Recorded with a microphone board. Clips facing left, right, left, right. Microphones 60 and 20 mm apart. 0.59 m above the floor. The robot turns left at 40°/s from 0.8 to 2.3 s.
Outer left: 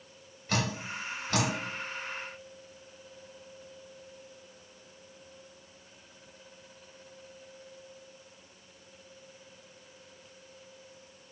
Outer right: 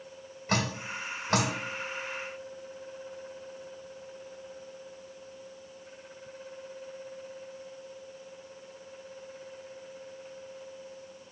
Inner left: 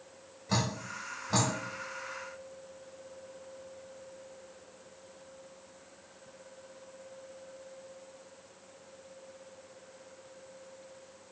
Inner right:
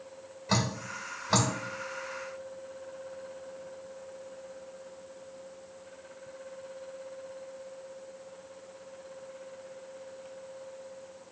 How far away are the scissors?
I don't hear scissors.